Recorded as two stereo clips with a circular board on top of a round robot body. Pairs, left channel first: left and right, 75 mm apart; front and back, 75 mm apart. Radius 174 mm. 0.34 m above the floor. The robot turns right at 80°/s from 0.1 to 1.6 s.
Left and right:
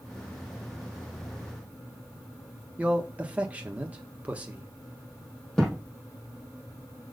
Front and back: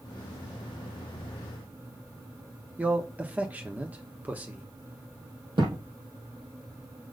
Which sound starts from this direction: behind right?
A man speaking, at 2.8 s.